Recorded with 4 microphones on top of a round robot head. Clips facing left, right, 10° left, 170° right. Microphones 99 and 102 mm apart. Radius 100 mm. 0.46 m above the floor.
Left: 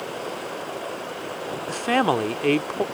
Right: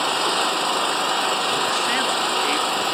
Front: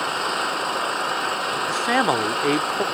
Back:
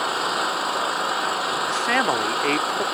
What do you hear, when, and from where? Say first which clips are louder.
0.0 s an engine running: right 9 dB, back 1 dB; 85° right
1.7 s a man speaking: left 1 dB, front 3 dB; 80° left